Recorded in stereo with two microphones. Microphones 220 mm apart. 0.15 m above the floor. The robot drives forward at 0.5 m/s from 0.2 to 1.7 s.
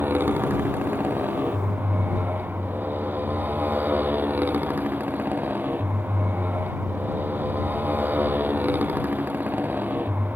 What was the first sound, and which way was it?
A motorcycle, 10° right (ahead or behind).